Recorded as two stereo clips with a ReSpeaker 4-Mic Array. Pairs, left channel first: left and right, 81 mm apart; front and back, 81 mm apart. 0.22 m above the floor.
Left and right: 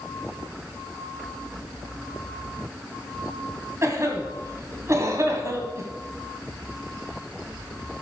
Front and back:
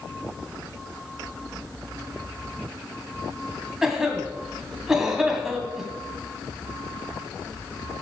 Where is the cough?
100° right, 1.9 m.